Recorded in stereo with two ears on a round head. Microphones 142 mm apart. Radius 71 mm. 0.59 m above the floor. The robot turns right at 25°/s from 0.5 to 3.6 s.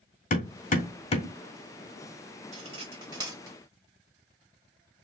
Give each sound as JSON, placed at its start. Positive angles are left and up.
{"t": 0.3, "sound": "hammering", "side_deg": 55, "distance_m": 1.8}
{"t": 2.5, "sound": "cutlery clinking", "side_deg": -45, "distance_m": 1.6}